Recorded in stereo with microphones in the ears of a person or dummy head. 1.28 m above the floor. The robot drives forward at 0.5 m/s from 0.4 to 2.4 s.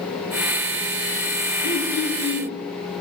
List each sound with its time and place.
1.6 s throat clearing: 60° left (ahead or behind), 4.5 m; by 2.6 s 55° left (ahead or behind), 4.5 m